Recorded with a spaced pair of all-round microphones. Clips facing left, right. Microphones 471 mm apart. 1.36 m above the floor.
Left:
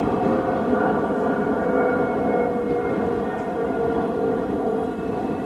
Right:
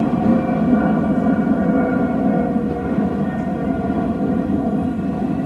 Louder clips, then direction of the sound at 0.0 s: Right 4 dB; 50° right (ahead or behind).